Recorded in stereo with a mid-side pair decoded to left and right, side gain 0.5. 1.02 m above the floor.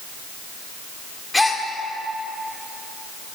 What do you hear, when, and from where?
1.3 s a gasp: 15° left, 1.3 m